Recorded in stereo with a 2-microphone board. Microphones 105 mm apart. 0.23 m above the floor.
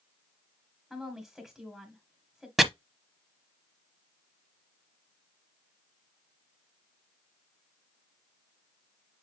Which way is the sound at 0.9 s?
5° right (ahead or behind).